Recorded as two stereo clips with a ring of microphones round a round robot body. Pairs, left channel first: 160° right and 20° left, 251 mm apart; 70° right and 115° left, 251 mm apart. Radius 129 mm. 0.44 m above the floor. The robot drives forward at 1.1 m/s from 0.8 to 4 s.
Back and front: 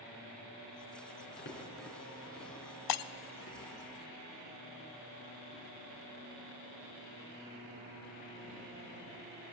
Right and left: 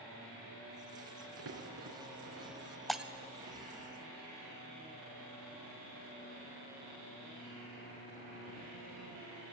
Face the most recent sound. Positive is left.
turn(degrees=-175)